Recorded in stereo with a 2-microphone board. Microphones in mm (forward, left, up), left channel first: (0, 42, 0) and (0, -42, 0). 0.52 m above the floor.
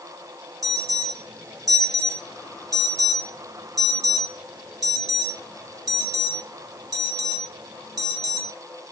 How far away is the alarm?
About 2.0 m.